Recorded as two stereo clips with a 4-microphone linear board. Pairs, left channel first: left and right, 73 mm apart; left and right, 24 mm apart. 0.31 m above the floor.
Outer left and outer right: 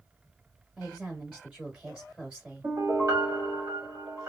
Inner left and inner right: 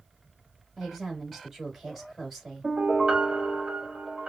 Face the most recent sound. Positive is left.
turn(degrees=-50)  # may be behind; listen again after turning